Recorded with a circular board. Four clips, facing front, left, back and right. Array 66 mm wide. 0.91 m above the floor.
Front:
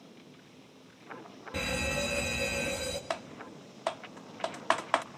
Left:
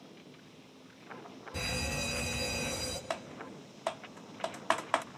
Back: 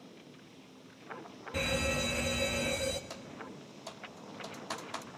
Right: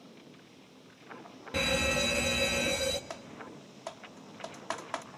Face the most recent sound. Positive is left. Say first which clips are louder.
# left 4 dB, front 7 dB
turn(degrees=25)